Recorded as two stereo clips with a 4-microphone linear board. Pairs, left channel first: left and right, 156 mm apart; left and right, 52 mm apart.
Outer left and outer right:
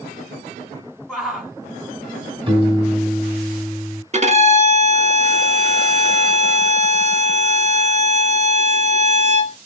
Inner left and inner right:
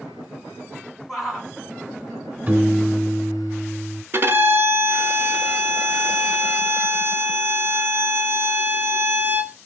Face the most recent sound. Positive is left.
turn(degrees=-45)  # may be behind; listen again after turning